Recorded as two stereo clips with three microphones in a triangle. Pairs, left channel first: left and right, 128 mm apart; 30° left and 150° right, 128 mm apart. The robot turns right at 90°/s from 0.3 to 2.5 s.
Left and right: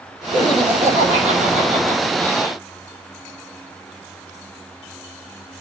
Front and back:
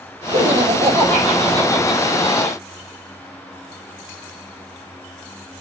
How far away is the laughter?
About 6 m.